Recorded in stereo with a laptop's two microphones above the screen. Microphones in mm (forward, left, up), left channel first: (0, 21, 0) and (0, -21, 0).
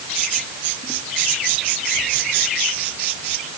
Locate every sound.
Only background noise.